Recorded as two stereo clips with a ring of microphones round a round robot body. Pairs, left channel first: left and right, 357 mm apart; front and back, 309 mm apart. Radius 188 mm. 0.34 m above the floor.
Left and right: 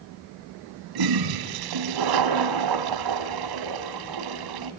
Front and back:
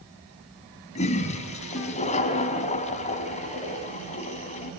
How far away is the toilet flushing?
About 2.5 m.